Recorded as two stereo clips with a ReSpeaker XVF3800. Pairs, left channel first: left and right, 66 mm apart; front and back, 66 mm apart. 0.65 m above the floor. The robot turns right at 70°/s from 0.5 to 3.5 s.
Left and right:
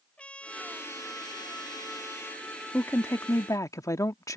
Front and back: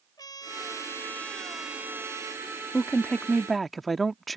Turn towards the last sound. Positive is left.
turn(degrees=90)